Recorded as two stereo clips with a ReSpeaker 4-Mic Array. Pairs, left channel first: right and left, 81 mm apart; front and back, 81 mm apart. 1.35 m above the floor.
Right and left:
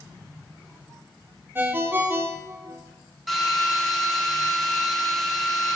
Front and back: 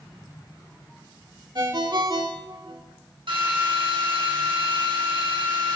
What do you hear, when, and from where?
1.6 s a ringtone: 155° left, 1.7 m
3.3 s a drill: straight behind, 8.5 m